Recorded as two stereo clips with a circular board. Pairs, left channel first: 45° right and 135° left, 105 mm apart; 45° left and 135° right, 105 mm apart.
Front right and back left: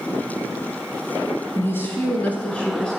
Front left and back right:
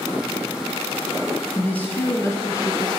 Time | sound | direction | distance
1.6 | a woman speaking | 20° right | 1.3 m